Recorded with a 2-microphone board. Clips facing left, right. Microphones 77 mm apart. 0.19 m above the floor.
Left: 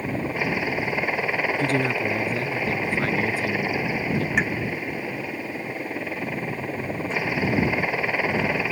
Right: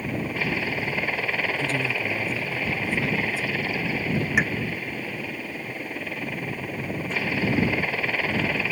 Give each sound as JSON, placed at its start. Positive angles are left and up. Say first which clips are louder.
{"t": 0.0, "sound": "a helicopter", "louder": "left 2 dB", "side_deg": 15}
{"t": 1.6, "sound": "a man speaking", "louder": "left 4 dB", "side_deg": 55}
{"t": 4.4, "sound": "a pop", "louder": "right 1 dB", "side_deg": -5}